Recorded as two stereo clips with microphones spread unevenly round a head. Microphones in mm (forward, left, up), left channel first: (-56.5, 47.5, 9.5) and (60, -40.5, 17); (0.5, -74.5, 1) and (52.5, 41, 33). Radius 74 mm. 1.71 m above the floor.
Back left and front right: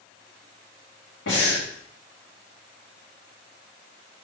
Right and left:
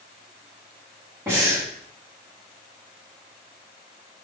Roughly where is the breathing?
Behind left.